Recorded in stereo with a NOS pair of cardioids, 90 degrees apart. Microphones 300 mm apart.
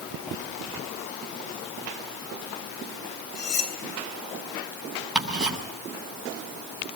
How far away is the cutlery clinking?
About 4 m.